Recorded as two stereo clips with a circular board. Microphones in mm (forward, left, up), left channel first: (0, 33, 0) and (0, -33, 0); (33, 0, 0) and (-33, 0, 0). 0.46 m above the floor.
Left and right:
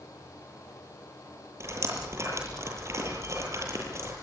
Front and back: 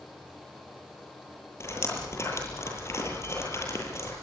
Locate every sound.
1.6 s dripping: 45° right, 9 m